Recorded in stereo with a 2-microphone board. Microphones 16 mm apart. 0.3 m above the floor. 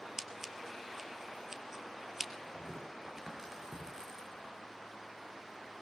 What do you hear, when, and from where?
0.2 s scissors: 25° right (ahead or behind), 1.4 m
2.5 s tearing paper: 30° right (ahead or behind), 6.5 m